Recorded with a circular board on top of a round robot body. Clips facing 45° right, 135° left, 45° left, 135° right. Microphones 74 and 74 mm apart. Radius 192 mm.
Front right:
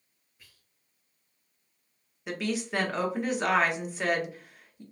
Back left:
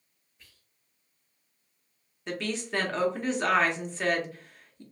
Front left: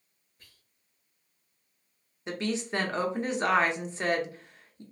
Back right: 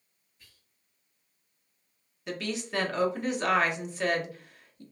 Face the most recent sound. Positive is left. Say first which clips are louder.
# front right 1 dB, front left 3 dB
turn(degrees=25)